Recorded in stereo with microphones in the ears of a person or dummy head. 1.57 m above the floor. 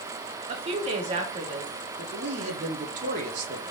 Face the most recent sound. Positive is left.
turn(degrees=-50)  # may be behind; listen again after turning